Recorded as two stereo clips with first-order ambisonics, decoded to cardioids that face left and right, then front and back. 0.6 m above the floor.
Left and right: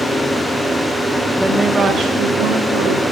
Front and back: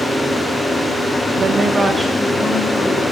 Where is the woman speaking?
165° left, 0.9 m; by 3.0 s 70° right, 1.6 m.